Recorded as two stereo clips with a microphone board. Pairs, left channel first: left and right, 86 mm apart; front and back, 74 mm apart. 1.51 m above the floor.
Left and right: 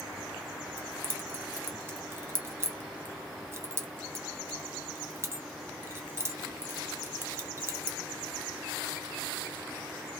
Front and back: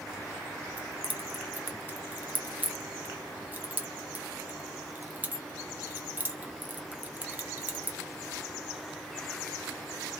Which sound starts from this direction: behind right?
Keys jangling, at 0.8 s.